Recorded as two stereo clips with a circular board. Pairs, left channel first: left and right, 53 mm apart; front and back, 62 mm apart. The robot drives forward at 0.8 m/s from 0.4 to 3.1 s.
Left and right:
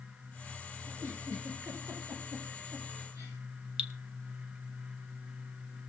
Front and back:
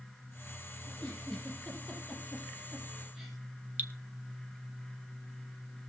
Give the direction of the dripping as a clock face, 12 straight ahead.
5 o'clock.